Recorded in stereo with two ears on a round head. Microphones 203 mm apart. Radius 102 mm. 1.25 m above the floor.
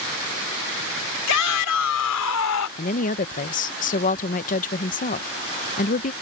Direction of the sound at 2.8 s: 35° left (ahead or behind).